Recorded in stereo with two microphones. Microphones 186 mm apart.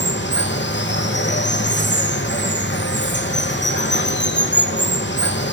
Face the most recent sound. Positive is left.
turn(degrees=80)